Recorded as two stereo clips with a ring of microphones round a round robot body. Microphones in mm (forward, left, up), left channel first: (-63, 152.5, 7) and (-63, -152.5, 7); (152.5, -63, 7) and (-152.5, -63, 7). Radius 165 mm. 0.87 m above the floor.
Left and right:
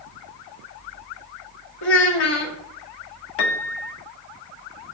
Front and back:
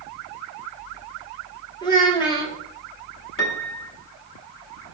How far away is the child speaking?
About 1.4 m.